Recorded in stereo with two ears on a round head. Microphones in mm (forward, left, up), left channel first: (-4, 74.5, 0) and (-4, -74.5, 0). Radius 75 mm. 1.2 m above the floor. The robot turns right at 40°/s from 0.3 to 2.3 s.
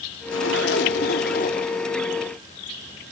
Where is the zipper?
85° left, 2 m; by 1.7 s 140° left, 2 m.